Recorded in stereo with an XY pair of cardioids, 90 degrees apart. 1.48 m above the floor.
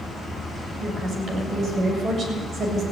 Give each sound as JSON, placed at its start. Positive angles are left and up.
{"t": 0.8, "sound": "a woman speaking", "azimuth_deg": -60, "distance_m": 7.0}